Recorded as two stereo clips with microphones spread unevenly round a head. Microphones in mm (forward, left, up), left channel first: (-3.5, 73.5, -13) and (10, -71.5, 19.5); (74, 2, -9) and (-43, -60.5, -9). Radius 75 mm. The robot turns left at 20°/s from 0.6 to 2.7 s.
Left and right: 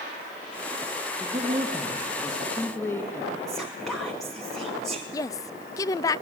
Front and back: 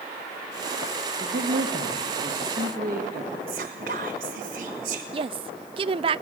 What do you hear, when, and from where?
1.2 s a man speaking: 160° right, 2 m; by 3.4 s 170° left, 2 m
3.5 s whispering: 175° right, 1.3 m
5.1 s a woman speaking: 170° left, 0.5 m